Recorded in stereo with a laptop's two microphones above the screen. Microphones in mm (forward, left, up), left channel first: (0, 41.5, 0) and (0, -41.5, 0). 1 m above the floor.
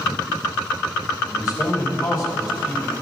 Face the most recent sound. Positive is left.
turn(degrees=40)  # may be behind; listen again after turning